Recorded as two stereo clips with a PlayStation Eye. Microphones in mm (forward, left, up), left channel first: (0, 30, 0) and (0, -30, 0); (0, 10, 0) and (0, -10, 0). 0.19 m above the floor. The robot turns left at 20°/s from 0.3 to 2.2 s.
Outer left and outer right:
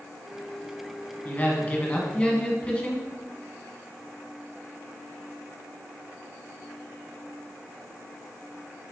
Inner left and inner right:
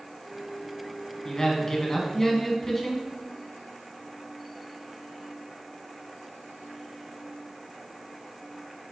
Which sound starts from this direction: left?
A man speaking, at 1.2 s.